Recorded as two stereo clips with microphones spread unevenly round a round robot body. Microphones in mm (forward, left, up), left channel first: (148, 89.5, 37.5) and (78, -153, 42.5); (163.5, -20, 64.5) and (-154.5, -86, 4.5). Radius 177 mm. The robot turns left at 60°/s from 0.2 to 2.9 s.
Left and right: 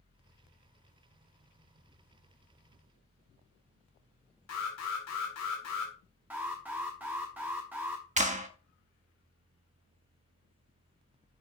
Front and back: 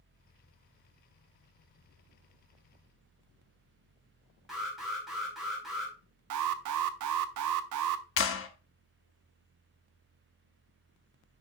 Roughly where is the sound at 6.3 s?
Behind.